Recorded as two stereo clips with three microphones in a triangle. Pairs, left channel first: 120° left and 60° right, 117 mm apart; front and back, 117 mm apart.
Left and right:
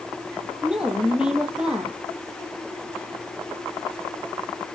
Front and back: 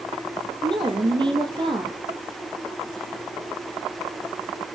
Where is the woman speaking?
140° right, 3.5 m.